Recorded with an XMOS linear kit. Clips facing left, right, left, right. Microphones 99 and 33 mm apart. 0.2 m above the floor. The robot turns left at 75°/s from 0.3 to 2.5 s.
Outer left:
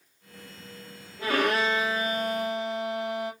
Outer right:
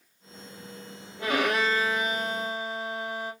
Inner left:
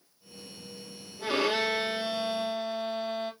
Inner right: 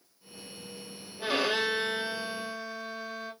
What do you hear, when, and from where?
1.2 s a violin: 155° right, 2.5 m; by 3.3 s 110° left, 2.5 m